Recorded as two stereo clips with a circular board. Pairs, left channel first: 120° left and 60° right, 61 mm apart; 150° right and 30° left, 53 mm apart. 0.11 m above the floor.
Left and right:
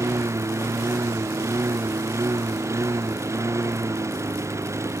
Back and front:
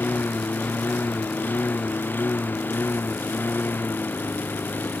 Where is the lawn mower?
100° right.